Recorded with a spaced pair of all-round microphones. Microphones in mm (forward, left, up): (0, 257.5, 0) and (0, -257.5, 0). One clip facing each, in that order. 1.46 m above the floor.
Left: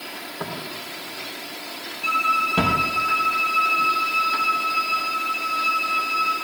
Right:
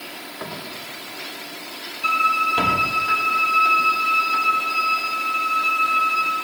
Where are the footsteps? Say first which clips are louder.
Left 2 dB; 60° left (ahead or behind), 6 m; by 2.9 s 65° left (ahead or behind), 3.5 m.